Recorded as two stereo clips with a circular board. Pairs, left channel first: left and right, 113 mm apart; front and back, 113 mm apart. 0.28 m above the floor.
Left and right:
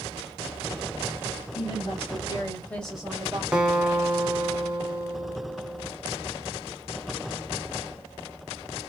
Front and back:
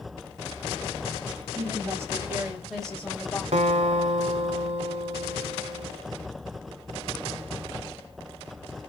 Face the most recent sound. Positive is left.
turn(degrees=-170)